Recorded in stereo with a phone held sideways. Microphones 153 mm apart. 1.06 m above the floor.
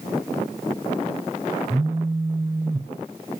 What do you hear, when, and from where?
1.7 s a phone buzzing: 20° right (ahead or behind), 0.5 m